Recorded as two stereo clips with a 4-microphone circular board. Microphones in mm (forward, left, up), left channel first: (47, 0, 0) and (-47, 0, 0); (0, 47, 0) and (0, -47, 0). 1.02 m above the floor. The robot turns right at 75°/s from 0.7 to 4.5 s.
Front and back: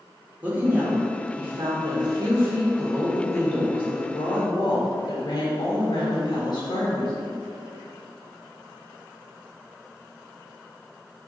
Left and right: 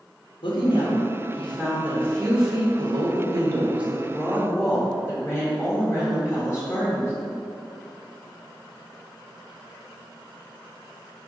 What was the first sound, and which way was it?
A woman speaking, 105° left.